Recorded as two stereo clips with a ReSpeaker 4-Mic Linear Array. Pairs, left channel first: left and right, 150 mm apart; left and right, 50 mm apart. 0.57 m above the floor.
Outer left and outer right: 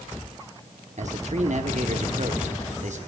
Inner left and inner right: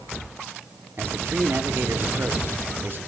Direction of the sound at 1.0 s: 50° right (ahead or behind).